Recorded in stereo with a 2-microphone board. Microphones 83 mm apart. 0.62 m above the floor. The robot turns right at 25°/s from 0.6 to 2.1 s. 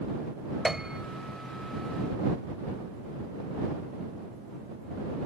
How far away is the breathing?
No breathing in this recording.